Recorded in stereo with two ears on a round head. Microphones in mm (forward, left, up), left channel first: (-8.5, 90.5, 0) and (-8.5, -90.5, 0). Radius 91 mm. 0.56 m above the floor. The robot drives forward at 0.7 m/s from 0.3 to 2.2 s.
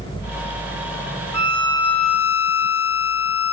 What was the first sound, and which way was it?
A violin, 20° left (ahead or behind).